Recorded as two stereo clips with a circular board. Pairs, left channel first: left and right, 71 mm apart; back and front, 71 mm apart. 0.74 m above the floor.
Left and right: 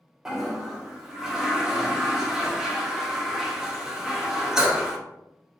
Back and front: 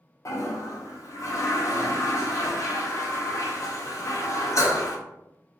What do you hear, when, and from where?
0.2 s a toilet flushing: 170° right, 0.5 m